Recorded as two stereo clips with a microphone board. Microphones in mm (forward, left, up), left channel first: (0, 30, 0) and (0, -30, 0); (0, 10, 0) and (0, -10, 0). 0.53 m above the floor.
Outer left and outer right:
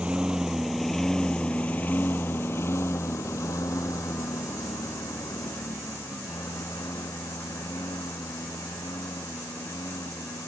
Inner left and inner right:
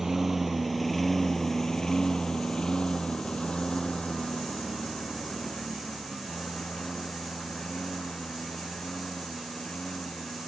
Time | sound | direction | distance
0.0 | a lawn mower | 20° right (ahead or behind) | ?